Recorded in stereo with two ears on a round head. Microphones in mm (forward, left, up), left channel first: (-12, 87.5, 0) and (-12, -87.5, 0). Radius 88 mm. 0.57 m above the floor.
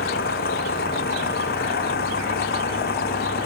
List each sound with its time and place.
0.0 s an engine running: 50° left (ahead or behind)